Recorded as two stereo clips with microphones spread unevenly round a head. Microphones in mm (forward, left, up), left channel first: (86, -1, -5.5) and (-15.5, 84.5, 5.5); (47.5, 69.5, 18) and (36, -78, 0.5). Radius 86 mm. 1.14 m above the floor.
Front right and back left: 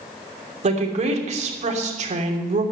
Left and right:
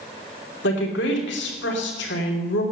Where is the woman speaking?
105° left, 3 m.